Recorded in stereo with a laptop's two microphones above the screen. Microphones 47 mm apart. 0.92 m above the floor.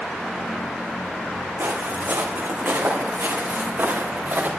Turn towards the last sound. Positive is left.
turn(degrees=-45)  # may be behind; listen again after turning